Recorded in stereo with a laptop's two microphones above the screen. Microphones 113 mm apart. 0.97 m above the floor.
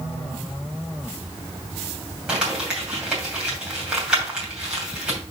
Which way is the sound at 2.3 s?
10° right (ahead or behind).